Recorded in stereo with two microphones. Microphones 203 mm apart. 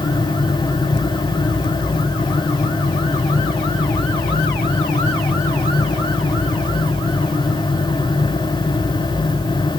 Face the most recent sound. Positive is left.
No sound to turn to.